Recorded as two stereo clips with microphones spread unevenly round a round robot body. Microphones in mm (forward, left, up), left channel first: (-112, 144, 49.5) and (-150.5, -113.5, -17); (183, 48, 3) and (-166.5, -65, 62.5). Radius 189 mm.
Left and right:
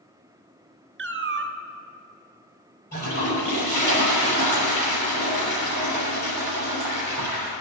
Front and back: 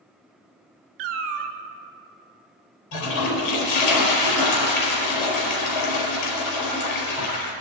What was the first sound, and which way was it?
A cat meowing, 140° right.